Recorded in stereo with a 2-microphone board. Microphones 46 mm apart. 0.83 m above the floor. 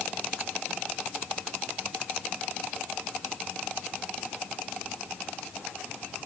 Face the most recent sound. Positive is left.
No sound to turn to.